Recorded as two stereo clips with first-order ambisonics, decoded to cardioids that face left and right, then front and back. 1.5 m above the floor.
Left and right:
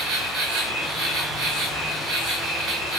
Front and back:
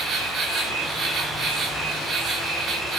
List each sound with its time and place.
0.0 s an insect: 115° right, 1.6 m